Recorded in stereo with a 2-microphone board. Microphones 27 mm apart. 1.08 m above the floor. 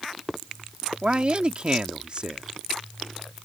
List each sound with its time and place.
1.0 s a man speaking: 40° right (ahead or behind)